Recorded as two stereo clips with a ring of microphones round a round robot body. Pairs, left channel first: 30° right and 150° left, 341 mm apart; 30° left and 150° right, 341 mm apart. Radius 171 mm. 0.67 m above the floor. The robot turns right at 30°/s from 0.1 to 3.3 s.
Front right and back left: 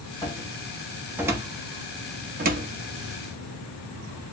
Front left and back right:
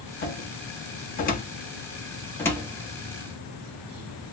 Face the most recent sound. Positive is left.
turn(degrees=135)